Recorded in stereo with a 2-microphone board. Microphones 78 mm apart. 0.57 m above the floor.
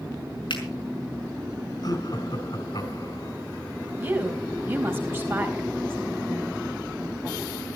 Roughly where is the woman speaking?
Right.